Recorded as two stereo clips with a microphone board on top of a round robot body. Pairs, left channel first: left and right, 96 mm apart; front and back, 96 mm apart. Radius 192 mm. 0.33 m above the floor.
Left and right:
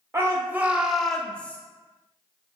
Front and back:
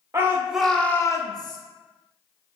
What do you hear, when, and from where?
0.1 s a shout: 135° right, 1.1 m; by 1.6 s 20° left, 1.3 m